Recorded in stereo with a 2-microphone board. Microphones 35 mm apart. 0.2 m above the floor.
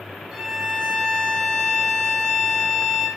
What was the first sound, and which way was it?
A violin, 10° right (ahead or behind).